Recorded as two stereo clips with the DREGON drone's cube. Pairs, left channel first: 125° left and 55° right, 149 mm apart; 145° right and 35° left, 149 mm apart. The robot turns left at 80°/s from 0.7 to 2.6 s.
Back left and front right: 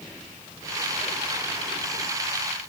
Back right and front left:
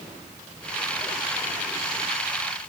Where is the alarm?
No alarm in this recording.